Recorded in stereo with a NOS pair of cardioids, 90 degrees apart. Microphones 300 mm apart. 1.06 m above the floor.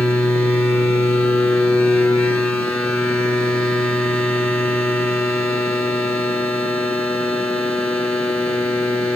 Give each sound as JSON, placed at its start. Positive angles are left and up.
{"t": 0.0, "sound": "a machine running", "azimuth_deg": 10, "distance_m": 6.0}